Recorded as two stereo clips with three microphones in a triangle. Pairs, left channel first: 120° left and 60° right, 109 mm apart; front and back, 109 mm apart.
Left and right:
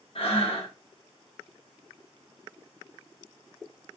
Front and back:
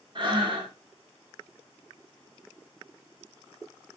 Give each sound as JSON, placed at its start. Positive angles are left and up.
{"t": 0.1, "sound": "breathing", "azimuth_deg": 140, "distance_m": 0.8}